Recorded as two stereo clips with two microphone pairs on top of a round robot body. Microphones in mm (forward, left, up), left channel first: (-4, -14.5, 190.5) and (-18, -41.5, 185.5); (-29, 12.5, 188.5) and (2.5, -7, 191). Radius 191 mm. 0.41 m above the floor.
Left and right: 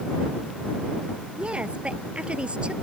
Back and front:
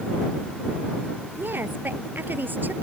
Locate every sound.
1.4 s a woman speaking: 65° right